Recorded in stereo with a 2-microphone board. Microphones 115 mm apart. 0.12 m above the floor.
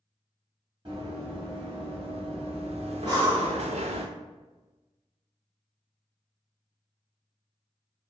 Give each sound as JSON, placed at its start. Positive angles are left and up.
{"t": 0.8, "sound": "running footsteps", "side_deg": -45, "distance_m": 1.9}
{"t": 3.0, "sound": "breathing", "side_deg": -35, "distance_m": 1.6}